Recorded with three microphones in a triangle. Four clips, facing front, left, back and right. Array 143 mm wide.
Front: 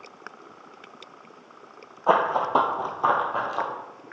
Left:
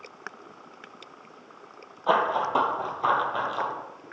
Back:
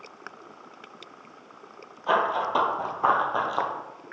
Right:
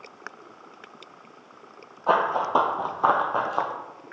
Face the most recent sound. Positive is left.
turn(degrees=-115)